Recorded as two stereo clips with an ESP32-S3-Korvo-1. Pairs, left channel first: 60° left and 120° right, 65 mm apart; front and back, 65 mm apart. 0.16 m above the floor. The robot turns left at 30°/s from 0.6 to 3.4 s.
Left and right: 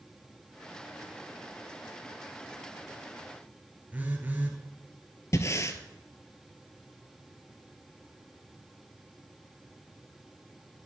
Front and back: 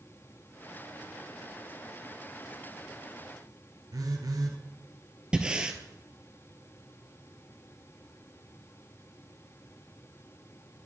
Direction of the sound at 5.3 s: 105° left.